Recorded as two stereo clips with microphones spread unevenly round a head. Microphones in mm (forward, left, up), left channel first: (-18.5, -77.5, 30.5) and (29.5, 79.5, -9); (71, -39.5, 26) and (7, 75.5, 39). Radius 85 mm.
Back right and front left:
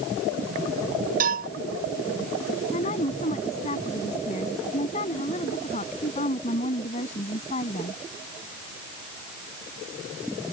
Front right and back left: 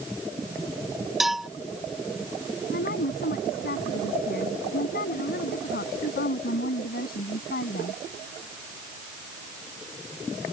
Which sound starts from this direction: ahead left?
A cowbell, at 1.2 s.